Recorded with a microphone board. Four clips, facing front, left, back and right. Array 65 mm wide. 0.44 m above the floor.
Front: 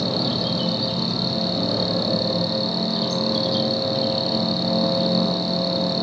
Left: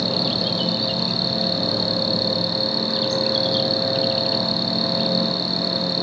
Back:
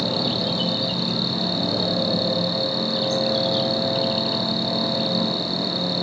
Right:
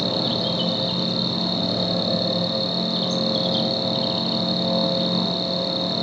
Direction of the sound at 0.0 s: 115° left.